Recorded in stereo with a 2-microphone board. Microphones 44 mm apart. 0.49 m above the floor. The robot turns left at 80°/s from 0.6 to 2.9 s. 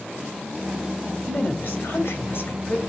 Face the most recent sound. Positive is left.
turn(degrees=15)